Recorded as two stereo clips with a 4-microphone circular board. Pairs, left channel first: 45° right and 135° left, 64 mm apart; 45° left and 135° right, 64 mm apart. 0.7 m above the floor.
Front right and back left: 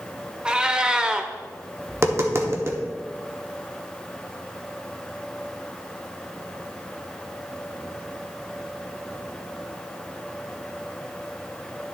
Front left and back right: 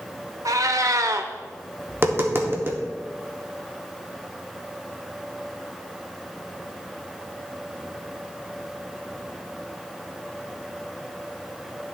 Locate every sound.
0.5 s a cat meowing: 150° right, 0.6 m
1.9 s tapping: 175° left, 1.0 m